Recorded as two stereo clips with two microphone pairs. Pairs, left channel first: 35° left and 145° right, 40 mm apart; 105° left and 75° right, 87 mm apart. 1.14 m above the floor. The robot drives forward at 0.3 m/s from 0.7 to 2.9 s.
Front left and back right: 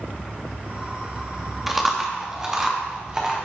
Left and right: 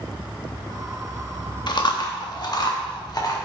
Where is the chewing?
135° left, 0.9 m; by 3.4 s 150° left, 1.2 m.